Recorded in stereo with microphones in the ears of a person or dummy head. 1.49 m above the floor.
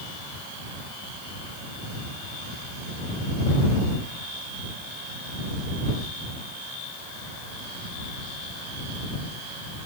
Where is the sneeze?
I don't hear a sneeze.